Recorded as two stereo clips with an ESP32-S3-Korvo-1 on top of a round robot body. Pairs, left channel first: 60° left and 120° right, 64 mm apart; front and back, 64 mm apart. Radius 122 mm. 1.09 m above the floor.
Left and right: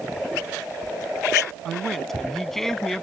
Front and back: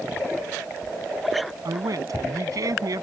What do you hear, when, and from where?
1.6 s a man speaking: 145° left